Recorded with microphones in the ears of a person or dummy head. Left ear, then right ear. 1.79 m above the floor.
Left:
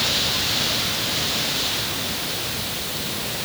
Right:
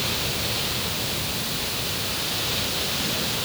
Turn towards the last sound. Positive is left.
No sound to turn to.